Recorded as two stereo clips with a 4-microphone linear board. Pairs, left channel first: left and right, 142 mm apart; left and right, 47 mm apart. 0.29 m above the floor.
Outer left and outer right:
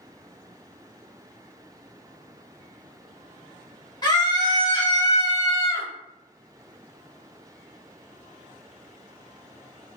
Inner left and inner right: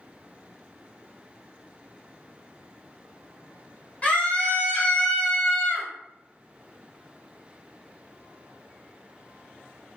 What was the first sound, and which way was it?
A scream, 30° left (ahead or behind).